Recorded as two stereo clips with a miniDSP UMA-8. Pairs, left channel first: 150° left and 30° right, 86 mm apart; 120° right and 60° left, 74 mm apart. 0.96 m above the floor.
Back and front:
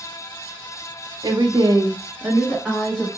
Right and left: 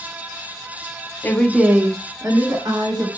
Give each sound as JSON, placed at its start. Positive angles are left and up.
{"t": 1.2, "sound": "a woman speaking", "azimuth_deg": -60, "distance_m": 0.7}